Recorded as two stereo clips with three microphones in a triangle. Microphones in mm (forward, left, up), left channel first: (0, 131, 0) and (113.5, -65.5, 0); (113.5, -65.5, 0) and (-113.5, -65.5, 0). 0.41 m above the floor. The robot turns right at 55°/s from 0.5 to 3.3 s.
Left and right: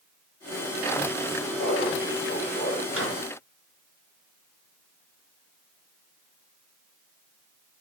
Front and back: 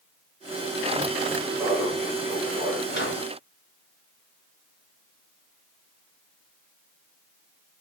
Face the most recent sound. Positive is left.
turn(degrees=-20)